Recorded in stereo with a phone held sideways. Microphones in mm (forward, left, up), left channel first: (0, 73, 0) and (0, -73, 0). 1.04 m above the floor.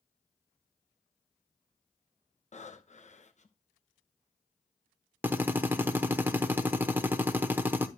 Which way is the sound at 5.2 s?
15° right (ahead or behind).